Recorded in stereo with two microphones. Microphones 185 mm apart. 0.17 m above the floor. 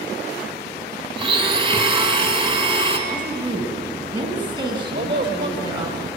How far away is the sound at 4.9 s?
About 4.5 m.